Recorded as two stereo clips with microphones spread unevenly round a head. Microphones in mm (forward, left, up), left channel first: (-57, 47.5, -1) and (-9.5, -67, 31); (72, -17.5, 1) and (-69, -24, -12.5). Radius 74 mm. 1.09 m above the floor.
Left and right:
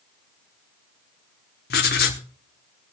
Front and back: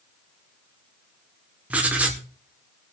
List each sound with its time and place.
1.7 s writing: 100° left, 1.3 m